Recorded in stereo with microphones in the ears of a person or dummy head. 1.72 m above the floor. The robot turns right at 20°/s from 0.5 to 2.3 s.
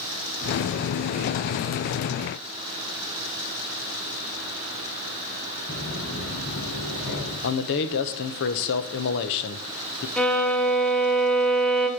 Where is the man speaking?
60° left (ahead or behind), 1.2 m.